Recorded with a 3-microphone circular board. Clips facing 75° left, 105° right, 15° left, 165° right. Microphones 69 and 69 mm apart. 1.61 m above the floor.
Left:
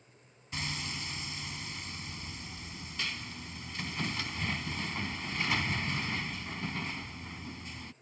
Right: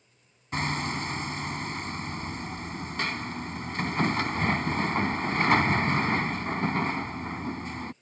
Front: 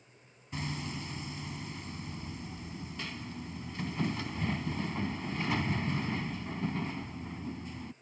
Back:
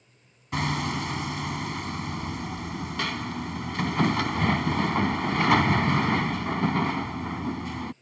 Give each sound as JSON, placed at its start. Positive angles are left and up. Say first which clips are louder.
{"t": 0.5, "sound": "hammering", "louder": "right 10 dB, back 11 dB", "azimuth_deg": -150}